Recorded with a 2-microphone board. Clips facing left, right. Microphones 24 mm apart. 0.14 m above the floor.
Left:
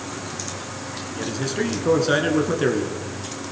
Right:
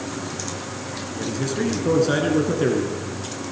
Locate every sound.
1.1 s a man speaking: 15° left (ahead or behind), 1.9 m